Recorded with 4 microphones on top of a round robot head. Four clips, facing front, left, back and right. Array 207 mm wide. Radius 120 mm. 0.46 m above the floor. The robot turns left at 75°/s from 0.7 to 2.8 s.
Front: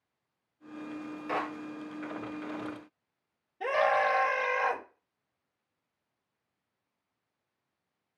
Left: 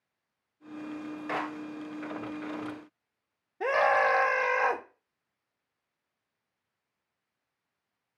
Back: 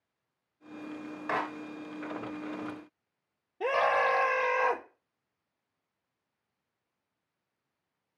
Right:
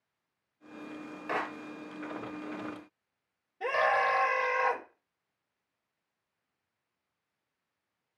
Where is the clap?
Straight behind, 3.5 m; by 1.5 s 165° left, 3.5 m.